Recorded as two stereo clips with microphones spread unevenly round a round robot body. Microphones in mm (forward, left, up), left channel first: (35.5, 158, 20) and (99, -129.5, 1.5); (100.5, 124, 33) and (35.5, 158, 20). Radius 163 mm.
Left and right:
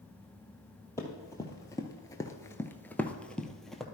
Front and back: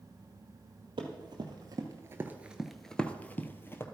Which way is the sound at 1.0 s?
Straight behind.